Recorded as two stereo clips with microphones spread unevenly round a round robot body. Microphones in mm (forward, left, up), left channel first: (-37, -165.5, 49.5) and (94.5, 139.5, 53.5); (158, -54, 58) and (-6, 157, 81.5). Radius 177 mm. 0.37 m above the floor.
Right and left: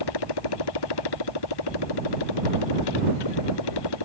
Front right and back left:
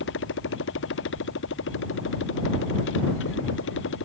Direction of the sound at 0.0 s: 105° right.